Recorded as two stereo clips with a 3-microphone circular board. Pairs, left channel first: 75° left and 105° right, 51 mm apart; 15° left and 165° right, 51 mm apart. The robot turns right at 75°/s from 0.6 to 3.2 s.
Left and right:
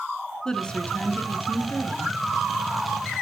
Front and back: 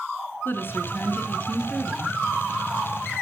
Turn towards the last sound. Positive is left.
turn(degrees=-160)